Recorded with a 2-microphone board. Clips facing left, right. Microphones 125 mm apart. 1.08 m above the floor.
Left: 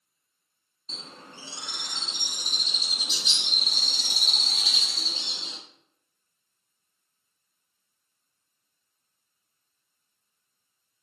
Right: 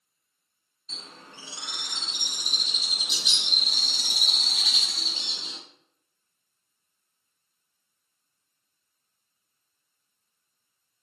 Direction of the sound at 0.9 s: 30° left (ahead or behind).